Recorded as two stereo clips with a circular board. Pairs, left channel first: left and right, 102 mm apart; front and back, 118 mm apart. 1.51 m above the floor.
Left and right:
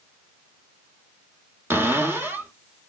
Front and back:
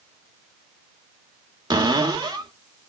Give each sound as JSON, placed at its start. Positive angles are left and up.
{"t": 1.7, "sound": "a cupboard door", "azimuth_deg": -150, "distance_m": 1.4}